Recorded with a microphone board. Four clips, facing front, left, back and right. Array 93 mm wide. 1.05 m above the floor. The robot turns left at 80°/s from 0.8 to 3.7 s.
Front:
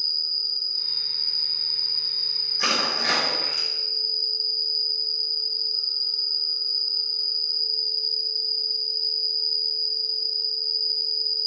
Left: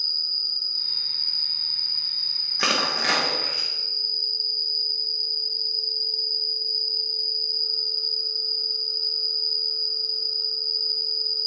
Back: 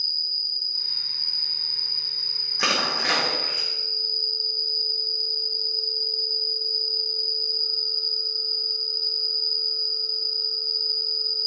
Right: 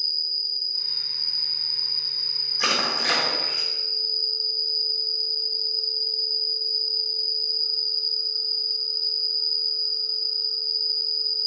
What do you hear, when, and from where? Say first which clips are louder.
0.0 s an insect: even, front 1 dB; 75° right, 1.4 m; by 11.5 s 50° left, 1.4 m
2.6 s crushing: left 1 dB, back 1 dB; 125° left, 0.8 m; by 3.7 s 40° left, 0.8 m